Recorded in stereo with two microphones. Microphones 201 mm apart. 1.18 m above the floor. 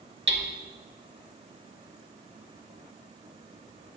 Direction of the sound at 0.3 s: 65° right (ahead or behind).